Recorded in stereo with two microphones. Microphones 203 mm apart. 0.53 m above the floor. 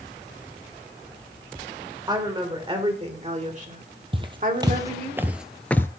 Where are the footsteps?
25° right (ahead or behind), 1.1 m; by 5.9 s 15° left (ahead or behind), 0.5 m.